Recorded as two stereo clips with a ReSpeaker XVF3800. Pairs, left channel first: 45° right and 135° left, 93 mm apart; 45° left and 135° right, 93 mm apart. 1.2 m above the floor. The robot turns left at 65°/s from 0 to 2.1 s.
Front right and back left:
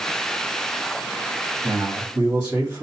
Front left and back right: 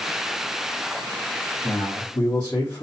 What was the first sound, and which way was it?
A man speaking, 110° left.